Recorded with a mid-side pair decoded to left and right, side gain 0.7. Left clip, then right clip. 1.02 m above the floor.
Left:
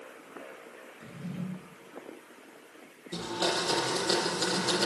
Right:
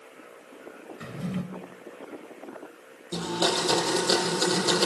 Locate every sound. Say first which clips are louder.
1.0 s a drawer: right 8 dB; 50° right, 2.5 m
3.1 s a blender: right 4 dB; 30° right, 7 m